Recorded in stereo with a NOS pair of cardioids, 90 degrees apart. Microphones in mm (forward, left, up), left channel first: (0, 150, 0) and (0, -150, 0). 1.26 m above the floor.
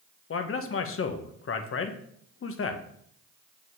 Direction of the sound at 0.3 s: 45° left.